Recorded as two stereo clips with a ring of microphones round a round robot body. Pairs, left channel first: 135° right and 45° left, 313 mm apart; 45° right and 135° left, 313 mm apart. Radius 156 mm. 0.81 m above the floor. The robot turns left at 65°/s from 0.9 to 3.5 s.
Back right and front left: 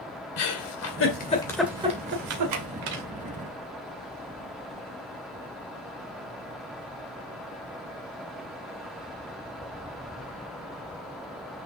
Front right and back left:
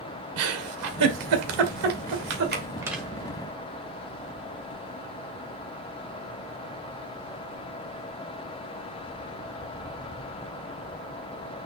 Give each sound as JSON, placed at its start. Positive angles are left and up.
{"t": 0.4, "sound": "a giggle", "azimuth_deg": 180, "distance_m": 2.0}